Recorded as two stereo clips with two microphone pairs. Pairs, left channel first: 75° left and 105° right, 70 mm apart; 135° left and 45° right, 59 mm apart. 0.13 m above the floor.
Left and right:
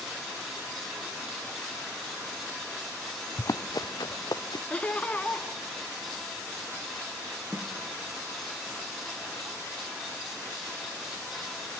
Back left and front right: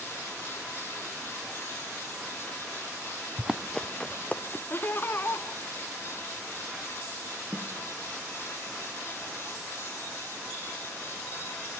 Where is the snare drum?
165° right, 2 m.